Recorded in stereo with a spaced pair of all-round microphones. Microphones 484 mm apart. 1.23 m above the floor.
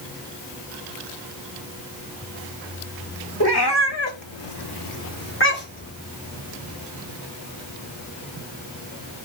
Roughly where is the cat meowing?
Left.